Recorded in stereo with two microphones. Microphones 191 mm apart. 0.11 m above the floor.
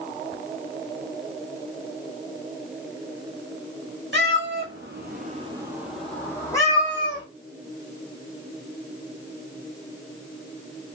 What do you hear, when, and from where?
4.1 s a cat meowing: 70° right (ahead or behind), 0.9 m; by 7.2 s 25° left (ahead or behind), 1.3 m